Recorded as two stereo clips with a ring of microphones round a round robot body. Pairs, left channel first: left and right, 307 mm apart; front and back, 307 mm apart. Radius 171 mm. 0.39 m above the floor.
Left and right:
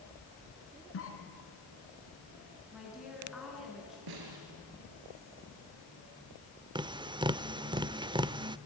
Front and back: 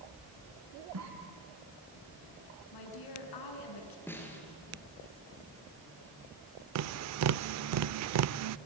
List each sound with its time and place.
0.9 s a cough: 135° left, 4 m
2.7 s a woman speaking: straight ahead, 5 m
4.1 s a snare drum: 85° right, 4.5 m
6.8 s tapping: 165° right, 0.5 m